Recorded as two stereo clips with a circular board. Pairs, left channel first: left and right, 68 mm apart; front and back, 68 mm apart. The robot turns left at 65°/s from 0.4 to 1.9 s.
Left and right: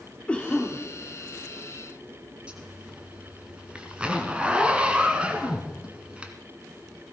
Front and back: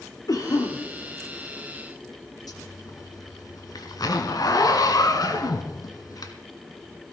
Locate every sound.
0.3 s a cough: 20° left, 2 m; by 0.8 s 10° right, 2 m
2.5 s a zipper: 15° right, 1.6 m